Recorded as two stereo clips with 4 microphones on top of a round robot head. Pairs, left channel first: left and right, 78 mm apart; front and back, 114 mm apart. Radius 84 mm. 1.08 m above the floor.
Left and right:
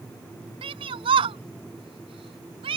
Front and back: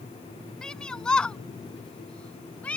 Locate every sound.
0.6 s a shout: 90° right; by 2.8 s 85° right